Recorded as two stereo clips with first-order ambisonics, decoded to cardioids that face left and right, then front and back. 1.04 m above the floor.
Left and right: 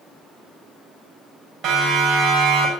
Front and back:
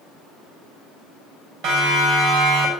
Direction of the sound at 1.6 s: 150° right.